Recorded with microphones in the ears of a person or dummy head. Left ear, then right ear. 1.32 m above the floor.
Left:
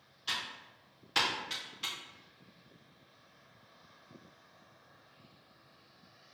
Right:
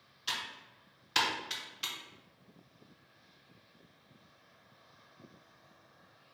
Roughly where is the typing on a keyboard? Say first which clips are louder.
Even; centre.